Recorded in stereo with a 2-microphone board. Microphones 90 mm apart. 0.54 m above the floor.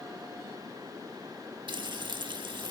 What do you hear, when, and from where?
1.7 s frying: 55° right (ahead or behind), 0.7 m